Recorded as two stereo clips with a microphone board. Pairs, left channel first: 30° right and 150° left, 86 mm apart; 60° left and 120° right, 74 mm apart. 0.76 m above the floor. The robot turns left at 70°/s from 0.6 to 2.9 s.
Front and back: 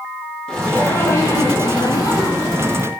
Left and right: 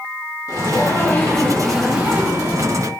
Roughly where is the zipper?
Ahead left.